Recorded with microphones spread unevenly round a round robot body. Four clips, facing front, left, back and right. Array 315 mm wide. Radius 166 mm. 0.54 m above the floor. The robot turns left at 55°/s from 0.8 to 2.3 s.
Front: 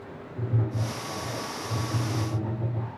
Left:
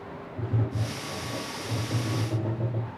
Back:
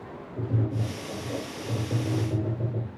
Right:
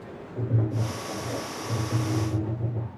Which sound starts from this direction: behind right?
Tapping, at 0.4 s.